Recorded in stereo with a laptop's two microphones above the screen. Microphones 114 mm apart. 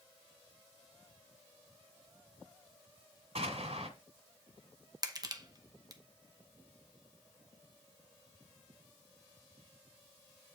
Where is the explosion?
65° right (ahead or behind), 1.9 m.